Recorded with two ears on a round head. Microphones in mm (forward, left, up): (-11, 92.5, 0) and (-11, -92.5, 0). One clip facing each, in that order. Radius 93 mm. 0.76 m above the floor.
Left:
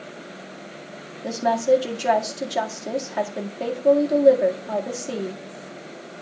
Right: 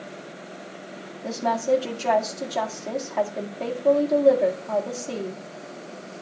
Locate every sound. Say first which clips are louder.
1.2 s a woman speaking: left 4 dB; 15° left (ahead or behind), 1.9 m